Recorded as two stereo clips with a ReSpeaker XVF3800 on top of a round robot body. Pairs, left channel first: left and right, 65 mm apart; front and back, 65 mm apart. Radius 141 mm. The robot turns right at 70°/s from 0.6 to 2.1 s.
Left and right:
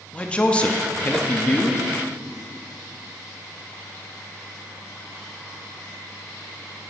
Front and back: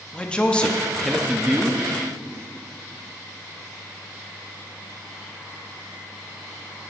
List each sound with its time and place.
0.1 s a man speaking: 50° left, 1.2 m; by 1.9 s 135° left, 1.2 m